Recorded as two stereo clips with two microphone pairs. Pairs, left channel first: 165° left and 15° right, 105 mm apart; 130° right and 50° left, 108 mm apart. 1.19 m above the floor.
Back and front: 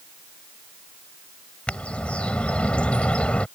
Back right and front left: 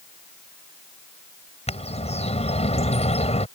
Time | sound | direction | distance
1.7 | a bird | 115° right | ?